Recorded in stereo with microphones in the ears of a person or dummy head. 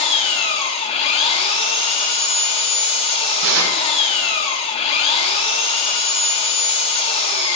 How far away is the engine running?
About 1.0 m.